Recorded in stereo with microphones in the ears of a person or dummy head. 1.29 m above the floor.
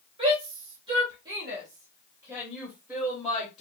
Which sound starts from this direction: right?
A shout, at 0.2 s.